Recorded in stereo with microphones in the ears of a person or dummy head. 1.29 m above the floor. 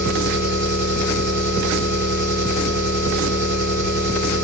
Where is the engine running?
20° right (ahead or behind), 3.5 m.